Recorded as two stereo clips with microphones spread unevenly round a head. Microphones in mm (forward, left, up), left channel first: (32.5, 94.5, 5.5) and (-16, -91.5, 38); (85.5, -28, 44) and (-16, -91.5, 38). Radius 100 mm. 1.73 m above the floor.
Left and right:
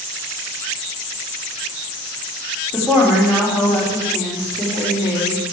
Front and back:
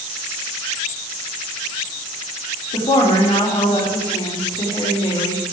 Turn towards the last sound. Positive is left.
turn(degrees=-15)